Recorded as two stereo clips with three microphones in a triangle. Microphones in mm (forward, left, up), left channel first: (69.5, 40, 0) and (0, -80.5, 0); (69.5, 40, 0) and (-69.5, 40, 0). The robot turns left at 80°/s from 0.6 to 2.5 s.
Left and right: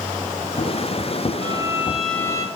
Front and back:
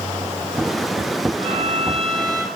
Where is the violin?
160° right, 0.7 m; by 2.5 s 115° left, 0.7 m.